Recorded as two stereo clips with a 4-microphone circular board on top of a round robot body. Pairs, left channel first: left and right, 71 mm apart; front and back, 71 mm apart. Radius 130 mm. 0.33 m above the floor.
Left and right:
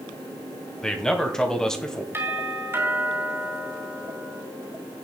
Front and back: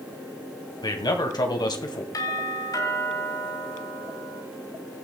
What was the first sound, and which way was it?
A man speaking, 10° left.